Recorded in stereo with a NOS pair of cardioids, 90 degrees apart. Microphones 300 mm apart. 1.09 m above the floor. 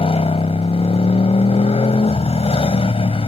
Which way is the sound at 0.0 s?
20° left.